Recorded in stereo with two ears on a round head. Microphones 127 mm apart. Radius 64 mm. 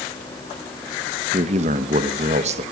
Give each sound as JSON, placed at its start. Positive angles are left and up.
{"t": 1.3, "sound": "a man speaking", "side_deg": -50, "distance_m": 1.1}